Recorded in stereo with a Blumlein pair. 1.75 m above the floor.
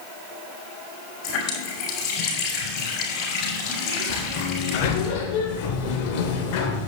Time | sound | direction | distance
1.2 | a running tap | 40° left | 4.5 m
4.1 | a sliding door | 45° left | 1.8 m